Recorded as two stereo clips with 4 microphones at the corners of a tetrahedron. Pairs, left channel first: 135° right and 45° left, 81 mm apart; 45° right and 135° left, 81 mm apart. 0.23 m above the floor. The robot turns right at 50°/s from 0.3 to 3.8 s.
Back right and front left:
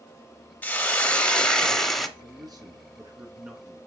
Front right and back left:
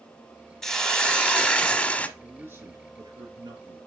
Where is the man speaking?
60° left, 2.5 m; by 3.8 s 140° left, 2.5 m.